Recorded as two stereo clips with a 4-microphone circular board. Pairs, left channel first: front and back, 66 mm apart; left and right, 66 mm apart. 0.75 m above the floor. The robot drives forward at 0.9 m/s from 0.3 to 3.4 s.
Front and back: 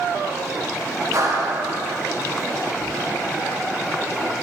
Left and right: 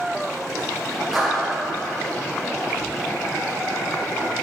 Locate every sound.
1.1 s a clap: straight behind, 3 m